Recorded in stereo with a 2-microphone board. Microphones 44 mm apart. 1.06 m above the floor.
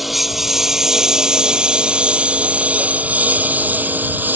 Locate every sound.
0.0 s a lawn mower: 5° right (ahead or behind); by 4.4 s 50° right (ahead or behind)